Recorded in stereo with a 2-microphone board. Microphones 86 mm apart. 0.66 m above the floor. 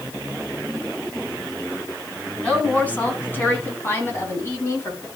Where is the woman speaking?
15° left (ahead or behind), 5 m; by 5.1 s 35° left (ahead or behind), 4.5 m.